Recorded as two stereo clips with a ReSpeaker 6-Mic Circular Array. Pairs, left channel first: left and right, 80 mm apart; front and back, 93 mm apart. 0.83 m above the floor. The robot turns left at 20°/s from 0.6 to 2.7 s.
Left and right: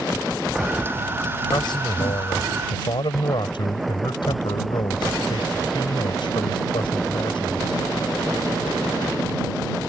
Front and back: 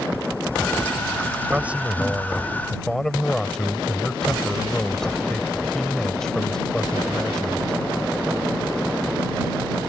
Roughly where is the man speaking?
Left.